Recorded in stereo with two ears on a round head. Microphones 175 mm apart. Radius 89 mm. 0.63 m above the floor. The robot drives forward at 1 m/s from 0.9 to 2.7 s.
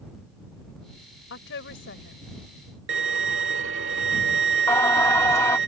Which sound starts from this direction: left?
A woman speaking, at 1.3 s.